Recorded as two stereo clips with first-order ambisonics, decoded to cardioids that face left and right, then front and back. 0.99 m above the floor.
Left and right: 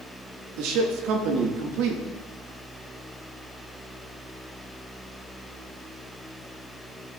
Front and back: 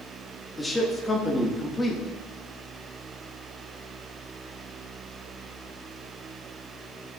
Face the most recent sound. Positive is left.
turn(degrees=-80)